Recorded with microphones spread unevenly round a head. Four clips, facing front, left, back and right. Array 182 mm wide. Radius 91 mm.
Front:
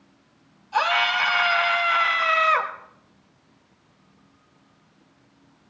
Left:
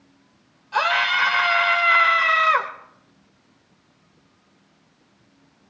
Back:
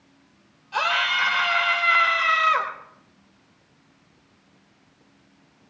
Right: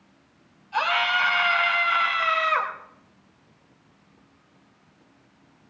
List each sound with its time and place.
0.7 s a scream: 100° left, 3.5 m